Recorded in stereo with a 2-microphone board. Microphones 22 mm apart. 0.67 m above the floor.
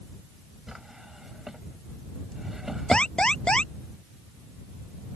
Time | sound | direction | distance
0.7 | a drawer | 15° right (ahead or behind) | ?
2.9 | an alarm | 45° left (ahead or behind) | ?